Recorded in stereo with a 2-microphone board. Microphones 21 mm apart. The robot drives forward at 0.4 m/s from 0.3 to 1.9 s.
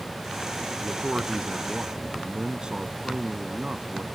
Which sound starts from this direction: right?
A man speaking, at 0.8 s.